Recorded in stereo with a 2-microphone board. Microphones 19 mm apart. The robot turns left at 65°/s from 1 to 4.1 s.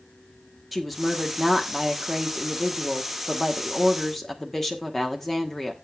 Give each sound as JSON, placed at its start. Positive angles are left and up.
{"t": 0.7, "sound": "a woman speaking", "side_deg": -10, "distance_m": 1.3}